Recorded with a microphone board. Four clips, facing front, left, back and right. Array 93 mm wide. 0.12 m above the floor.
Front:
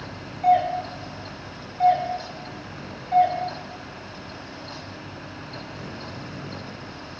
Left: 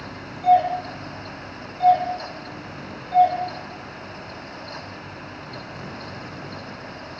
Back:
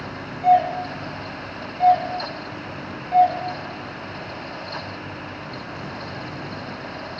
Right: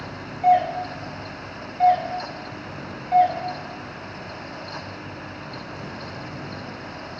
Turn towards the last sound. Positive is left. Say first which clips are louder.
# left 1 dB, back 2 dB
turn(degrees=-85)